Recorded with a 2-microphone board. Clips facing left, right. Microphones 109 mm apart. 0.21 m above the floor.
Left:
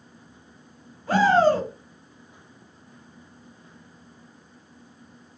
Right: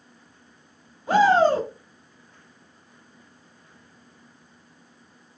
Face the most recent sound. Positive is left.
turn(degrees=-20)  # may be behind; listen again after turning